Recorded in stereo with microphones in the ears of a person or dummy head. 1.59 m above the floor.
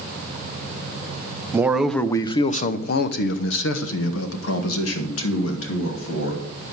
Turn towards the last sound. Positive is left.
turn(degrees=80)